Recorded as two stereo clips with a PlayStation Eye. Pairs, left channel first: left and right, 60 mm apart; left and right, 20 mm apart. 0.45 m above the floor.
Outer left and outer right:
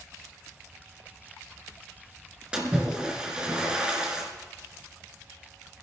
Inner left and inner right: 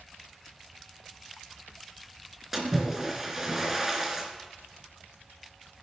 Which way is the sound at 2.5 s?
15° right (ahead or behind).